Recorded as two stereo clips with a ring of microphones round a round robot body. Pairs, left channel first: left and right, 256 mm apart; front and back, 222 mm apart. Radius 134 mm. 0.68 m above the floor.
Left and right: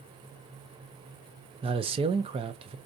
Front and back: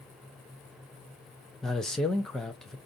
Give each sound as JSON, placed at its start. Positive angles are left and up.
{"t": 1.6, "sound": "a man speaking", "azimuth_deg": -85, "distance_m": 0.6}